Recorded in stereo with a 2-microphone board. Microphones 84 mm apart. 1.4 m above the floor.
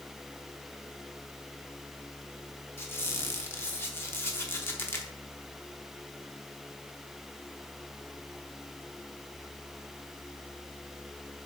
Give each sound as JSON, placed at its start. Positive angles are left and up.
{"t": 2.8, "sound": "a squeak", "side_deg": 25, "distance_m": 1.0}